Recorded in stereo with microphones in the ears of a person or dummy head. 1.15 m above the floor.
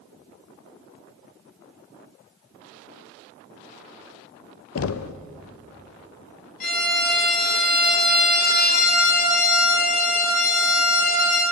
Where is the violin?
50° left (ahead or behind), 7 m.